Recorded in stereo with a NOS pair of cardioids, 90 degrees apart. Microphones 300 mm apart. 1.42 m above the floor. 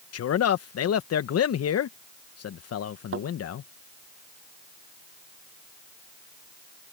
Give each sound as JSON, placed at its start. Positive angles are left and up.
{"t": 0.1, "sound": "a man speaking", "azimuth_deg": 55}
{"t": 3.1, "sound": "a thud", "azimuth_deg": -45}